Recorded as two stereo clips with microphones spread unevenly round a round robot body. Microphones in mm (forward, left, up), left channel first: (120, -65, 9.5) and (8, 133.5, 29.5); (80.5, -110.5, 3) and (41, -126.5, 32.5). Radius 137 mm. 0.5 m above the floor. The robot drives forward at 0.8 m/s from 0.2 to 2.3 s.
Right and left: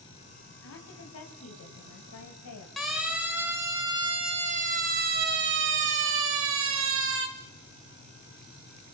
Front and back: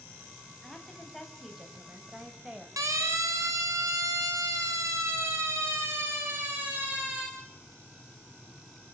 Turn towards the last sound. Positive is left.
turn(degrees=105)